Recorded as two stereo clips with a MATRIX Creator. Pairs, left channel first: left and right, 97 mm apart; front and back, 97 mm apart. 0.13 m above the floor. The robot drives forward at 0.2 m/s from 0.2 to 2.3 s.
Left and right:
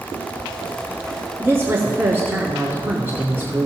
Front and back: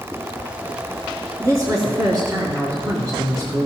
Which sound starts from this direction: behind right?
A woman speaking, at 1.4 s.